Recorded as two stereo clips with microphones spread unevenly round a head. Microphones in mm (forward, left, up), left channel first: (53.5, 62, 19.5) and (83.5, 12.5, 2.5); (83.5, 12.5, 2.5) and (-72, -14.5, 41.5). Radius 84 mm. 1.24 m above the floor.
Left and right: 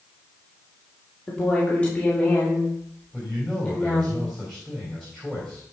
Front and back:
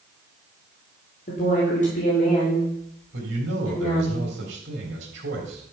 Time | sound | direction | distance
1.3 | a woman speaking | 50° left | 3.5 m
3.1 | a man speaking | 155° right | 3.5 m